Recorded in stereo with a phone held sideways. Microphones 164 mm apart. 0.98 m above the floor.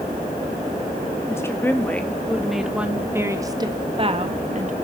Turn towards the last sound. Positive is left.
turn(degrees=-50)  # may be behind; listen again after turning